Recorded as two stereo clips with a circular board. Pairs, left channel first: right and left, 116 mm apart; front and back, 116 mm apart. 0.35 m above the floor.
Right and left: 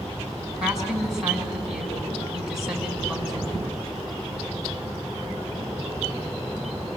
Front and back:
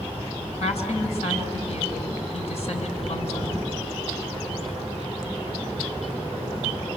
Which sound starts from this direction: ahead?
A woman speaking, at 0.6 s.